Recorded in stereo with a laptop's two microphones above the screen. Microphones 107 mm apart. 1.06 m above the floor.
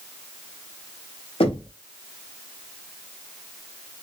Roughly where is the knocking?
Left.